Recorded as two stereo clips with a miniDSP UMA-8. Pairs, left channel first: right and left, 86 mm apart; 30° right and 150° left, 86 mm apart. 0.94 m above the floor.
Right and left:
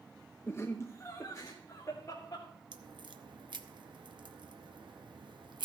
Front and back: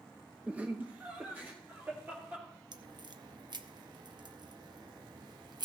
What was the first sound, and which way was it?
Laughter, 140° right.